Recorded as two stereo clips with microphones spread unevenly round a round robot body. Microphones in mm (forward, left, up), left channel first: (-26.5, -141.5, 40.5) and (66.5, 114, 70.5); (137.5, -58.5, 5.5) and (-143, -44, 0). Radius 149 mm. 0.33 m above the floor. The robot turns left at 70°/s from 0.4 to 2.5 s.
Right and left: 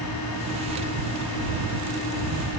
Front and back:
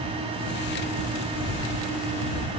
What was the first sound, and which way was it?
Only background noise.